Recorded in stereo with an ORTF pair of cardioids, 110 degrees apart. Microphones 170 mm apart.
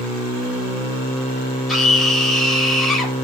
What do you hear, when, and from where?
1.7 s a scream: straight ahead, 3.5 m